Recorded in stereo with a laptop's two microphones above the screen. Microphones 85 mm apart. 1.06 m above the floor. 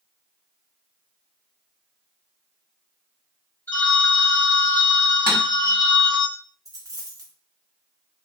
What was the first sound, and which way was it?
A phone ringing, 25° left (ahead or behind).